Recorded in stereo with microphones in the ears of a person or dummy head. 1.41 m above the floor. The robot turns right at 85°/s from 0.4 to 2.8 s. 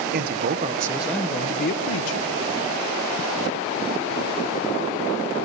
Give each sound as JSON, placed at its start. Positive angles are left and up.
{"t": 0.1, "sound": "a man speaking", "azimuth_deg": -55, "distance_m": 1.1}